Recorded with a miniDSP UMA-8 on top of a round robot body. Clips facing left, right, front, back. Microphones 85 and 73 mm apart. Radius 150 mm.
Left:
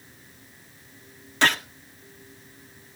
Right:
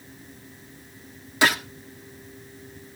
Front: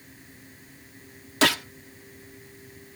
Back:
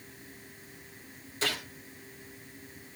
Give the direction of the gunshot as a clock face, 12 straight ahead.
12 o'clock.